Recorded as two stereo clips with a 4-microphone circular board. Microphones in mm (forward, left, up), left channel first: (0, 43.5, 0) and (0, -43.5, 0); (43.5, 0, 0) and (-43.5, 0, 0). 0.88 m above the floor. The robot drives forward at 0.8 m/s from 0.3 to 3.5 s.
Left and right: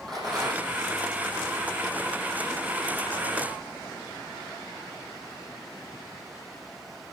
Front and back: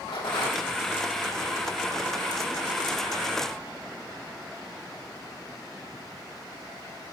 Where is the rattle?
Straight ahead, 9.5 m.